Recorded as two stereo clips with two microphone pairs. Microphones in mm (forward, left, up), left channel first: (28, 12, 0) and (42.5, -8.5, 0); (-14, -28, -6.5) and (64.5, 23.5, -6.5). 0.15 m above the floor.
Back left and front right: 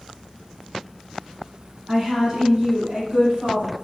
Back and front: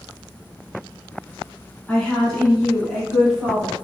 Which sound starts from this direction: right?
A woman speaking, at 1.9 s.